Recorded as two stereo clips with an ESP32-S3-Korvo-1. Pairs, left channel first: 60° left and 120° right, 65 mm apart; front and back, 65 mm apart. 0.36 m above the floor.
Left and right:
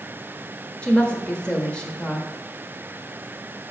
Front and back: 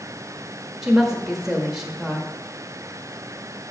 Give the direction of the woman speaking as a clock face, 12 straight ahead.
8 o'clock.